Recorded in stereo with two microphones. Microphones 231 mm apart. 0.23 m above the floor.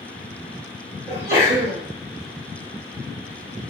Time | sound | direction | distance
1.1 | a sneeze | 15° right (ahead or behind) | 1.1 m